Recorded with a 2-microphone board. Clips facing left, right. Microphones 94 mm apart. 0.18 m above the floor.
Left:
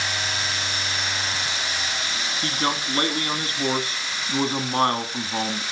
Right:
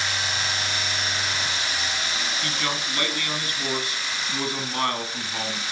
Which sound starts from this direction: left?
A man speaking, at 2.4 s.